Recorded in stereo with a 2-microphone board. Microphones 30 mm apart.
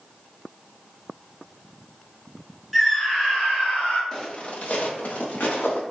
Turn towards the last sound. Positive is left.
turn(degrees=80)